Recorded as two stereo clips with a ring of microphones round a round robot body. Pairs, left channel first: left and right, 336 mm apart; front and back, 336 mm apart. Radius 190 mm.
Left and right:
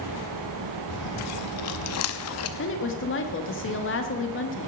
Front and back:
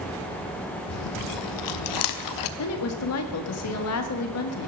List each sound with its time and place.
0.9 s chewing: 40° left, 0.5 m
2.6 s a woman speaking: 40° left, 1.5 m